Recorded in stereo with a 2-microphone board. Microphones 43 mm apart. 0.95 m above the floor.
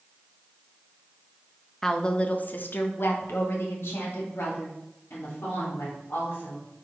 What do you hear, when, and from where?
1.8 s a woman speaking: 10° left (ahead or behind), 0.7 m; by 6.7 s 75° left (ahead or behind), 3.5 m